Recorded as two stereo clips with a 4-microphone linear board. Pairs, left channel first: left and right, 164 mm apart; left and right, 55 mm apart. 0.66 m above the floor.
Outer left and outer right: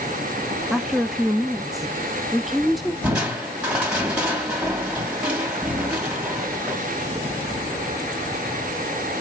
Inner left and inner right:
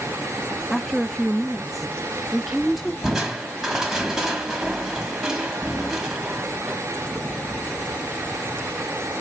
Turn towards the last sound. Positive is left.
turn(degrees=-5)  # may be behind; listen again after turning